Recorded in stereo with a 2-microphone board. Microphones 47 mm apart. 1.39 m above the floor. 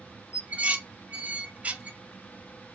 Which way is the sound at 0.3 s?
30° right (ahead or behind).